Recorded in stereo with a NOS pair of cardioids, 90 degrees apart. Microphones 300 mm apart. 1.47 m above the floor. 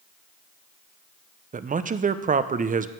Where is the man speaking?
30° right, 0.7 m.